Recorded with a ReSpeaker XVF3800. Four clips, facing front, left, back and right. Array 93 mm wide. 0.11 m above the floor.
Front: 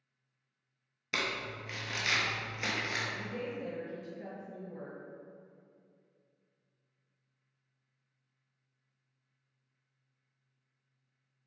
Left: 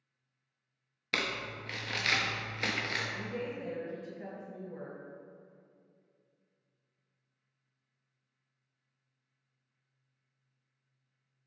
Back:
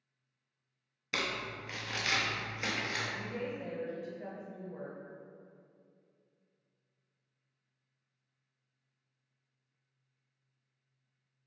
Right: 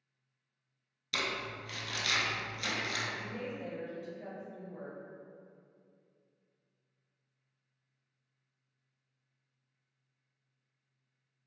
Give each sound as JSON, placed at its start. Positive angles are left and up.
{"t": 1.1, "sound": "crumpling", "azimuth_deg": 85, "distance_m": 0.5}
{"t": 3.1, "sound": "a woman speaking", "azimuth_deg": 90, "distance_m": 1.8}